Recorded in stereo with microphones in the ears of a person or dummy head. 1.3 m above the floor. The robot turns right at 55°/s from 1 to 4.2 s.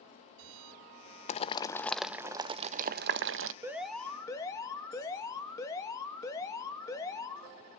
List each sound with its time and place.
1.3 s boiling: 35° left (ahead or behind), 0.5 m; by 3.5 s 60° right (ahead or behind), 0.5 m
3.6 s an alarm: 15° right, 1.5 m; by 7.5 s 15° left, 1.5 m